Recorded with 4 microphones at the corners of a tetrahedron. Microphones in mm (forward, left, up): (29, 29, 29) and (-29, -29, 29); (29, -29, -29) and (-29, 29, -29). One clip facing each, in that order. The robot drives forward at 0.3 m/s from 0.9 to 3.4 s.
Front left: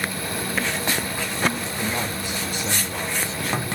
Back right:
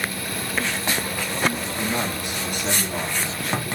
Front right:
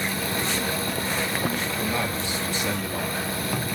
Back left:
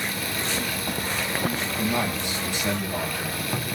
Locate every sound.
1.8 s a man speaking: 155° right, 4 m; by 3.5 s 160° right, 4.5 m